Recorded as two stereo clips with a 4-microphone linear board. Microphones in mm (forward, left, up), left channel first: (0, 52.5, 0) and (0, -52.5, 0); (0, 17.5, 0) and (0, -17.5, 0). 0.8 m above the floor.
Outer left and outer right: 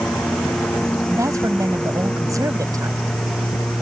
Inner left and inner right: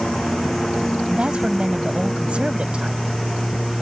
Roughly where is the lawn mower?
Centre.